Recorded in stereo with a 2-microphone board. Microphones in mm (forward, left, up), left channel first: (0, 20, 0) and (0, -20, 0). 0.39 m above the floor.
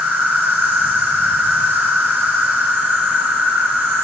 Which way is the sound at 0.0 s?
65° right (ahead or behind).